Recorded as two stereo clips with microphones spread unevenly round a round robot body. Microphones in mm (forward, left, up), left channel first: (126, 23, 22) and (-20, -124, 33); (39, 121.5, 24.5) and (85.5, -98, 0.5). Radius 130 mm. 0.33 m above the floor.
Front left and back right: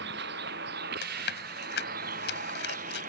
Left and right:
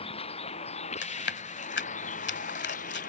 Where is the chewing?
70° left.